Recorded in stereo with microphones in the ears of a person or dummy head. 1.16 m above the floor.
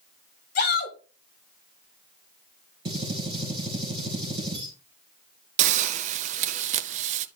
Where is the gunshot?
25° right (ahead or behind), 3.5 m.